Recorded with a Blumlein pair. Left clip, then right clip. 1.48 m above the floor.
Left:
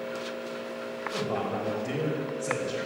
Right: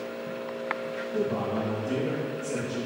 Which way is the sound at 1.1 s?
40° left.